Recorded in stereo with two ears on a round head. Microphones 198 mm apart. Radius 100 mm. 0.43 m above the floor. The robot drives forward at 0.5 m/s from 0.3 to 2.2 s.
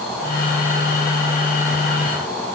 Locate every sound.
Only background noise.